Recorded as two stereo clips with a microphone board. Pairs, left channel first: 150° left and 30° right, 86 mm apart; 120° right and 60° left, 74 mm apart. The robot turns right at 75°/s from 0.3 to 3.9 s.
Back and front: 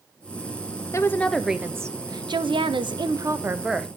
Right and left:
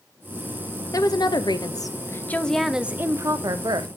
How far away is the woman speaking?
About 0.8 m.